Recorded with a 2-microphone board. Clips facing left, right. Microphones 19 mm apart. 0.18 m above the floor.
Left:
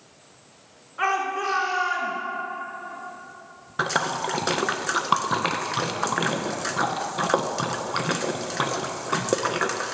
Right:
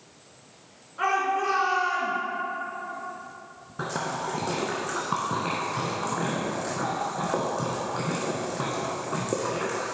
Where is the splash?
65° left (ahead or behind), 0.5 m.